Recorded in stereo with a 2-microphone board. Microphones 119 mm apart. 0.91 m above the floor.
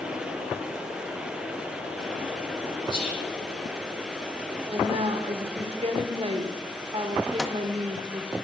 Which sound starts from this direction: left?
Whispering, at 2.9 s.